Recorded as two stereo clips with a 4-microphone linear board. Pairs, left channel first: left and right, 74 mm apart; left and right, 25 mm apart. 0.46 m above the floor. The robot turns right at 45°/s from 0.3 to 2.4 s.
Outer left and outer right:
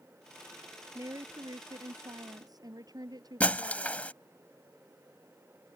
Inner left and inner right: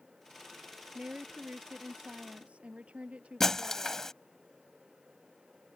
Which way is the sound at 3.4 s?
20° left (ahead or behind).